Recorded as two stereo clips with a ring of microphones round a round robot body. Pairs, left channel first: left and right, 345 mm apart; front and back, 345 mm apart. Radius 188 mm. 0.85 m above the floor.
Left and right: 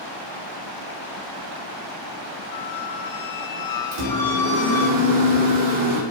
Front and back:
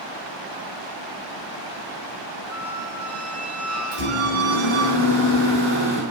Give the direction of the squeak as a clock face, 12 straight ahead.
8 o'clock.